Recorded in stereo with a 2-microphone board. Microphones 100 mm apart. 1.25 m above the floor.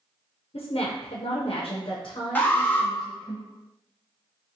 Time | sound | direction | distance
0.5 | a woman speaking | 65° left (ahead or behind) | 0.8 m
2.4 | an alarm | 15° left (ahead or behind) | 0.9 m